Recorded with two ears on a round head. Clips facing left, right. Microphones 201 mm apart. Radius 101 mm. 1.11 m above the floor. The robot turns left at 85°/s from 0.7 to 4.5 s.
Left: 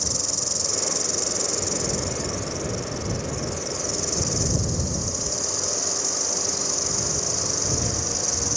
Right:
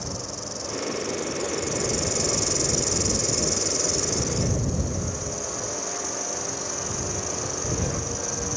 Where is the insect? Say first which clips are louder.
Left 1 dB; 105° left; by 8.6 s 140° left.